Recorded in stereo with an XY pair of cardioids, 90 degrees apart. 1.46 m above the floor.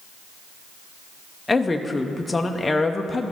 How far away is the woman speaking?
About 0.6 m.